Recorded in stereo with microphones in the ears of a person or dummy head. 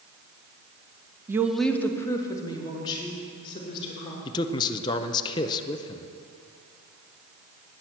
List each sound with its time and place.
1.3 s a woman speaking: 20° right (ahead or behind), 0.7 m; by 4.2 s 25° left (ahead or behind), 4 m
4.2 s a man speaking: 20° left (ahead or behind), 0.6 m